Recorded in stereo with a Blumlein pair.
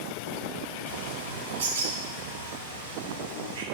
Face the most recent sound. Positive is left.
turn(degrees=-60)